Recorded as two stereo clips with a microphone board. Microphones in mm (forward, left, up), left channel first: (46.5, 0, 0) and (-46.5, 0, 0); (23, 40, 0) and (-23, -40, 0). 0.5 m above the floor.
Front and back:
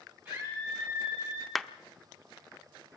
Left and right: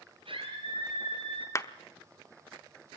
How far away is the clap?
About 0.8 m.